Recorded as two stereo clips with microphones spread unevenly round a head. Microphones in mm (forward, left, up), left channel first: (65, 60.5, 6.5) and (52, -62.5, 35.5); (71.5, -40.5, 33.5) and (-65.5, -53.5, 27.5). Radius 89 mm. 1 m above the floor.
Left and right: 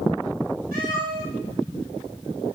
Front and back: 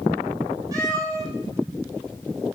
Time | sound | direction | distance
0.7 | a cat meowing | 110° right | 8 m